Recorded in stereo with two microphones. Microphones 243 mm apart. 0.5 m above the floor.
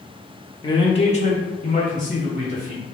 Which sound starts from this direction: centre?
A man speaking, at 0.6 s.